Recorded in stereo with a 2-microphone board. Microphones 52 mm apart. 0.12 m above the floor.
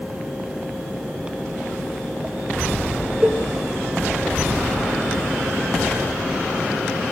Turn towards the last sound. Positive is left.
turn(degrees=-20)  # may be behind; listen again after turning